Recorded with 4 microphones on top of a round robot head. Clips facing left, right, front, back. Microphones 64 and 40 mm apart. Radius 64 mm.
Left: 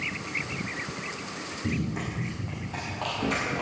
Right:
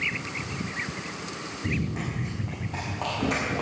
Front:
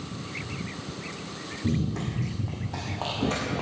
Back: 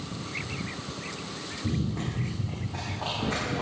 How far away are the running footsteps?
About 3.5 m.